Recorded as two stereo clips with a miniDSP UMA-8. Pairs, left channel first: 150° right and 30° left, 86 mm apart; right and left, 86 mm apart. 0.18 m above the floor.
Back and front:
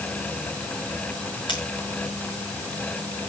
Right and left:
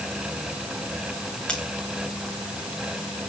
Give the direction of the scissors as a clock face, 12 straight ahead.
6 o'clock.